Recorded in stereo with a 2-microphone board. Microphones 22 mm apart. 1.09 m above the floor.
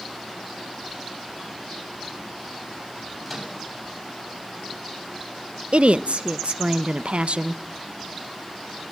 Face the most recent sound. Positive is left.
turn(degrees=-70)  # may be behind; listen again after turning